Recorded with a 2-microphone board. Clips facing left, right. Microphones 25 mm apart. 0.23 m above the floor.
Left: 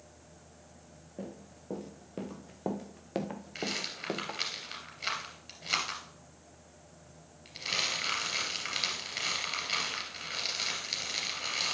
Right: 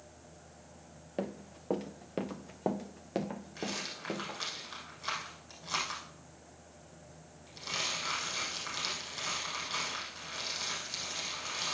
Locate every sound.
1.2 s running footsteps: 55° right (ahead or behind), 1.2 m; by 4.4 s 35° left (ahead or behind), 1.4 m
3.5 s a rattle: 70° left (ahead or behind), 3.5 m